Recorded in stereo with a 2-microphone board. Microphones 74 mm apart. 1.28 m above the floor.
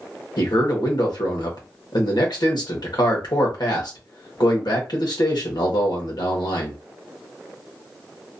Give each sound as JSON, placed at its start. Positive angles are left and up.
{"t": 0.4, "sound": "a man speaking", "side_deg": 75, "distance_m": 1.3}